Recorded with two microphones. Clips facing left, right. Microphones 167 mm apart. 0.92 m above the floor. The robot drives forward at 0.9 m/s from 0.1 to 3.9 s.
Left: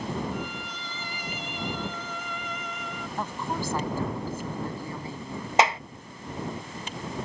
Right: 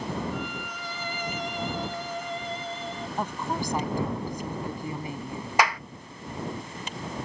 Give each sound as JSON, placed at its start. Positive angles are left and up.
{"t": 0.3, "sound": "a violin", "side_deg": -65}
{"t": 3.2, "sound": "a woman speaking", "side_deg": -20}
{"t": 5.6, "sound": "a clap", "side_deg": 25}